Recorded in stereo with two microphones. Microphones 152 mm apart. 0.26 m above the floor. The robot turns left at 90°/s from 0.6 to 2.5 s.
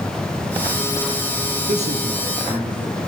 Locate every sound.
1.7 s a man speaking: 120° right, 5 m; by 3.0 s 170° left, 5 m